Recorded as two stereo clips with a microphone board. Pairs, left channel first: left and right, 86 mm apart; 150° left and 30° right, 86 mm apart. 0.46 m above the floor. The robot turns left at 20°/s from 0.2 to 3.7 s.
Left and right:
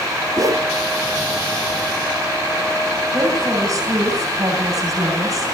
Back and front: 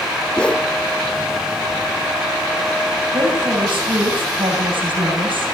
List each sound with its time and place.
0.4 s a whoosh: 130° right, 0.7 m; by 0.7 s 140° right, 0.7 m
3.1 s a woman speaking: 35° right, 8.5 m; by 5.5 s 45° right, 8.5 m